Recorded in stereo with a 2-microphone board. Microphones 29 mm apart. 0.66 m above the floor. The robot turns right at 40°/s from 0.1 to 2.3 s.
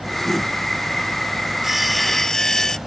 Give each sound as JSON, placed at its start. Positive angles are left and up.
{"t": 1.6, "sound": "sawing", "side_deg": -10}